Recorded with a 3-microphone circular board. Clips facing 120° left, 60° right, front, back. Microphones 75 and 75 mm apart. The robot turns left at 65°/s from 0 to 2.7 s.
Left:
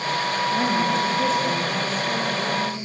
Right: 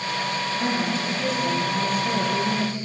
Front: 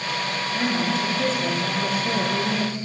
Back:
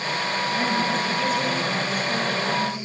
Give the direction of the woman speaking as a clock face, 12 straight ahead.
8 o'clock.